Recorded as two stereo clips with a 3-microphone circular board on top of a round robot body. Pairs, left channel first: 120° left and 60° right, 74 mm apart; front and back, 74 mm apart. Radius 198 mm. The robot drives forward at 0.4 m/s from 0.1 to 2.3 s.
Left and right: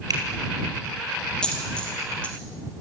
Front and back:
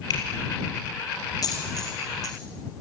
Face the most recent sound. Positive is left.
turn(degrees=45)